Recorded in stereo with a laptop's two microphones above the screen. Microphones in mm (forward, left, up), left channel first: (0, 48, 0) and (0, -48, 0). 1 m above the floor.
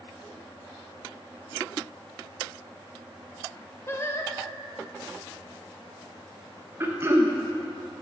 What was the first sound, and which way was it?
Singing, 25° left (ahead or behind).